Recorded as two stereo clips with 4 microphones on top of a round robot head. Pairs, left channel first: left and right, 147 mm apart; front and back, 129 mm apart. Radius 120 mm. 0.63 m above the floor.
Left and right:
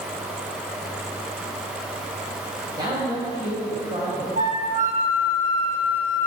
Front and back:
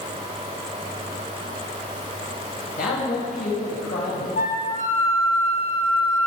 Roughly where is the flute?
Ahead right.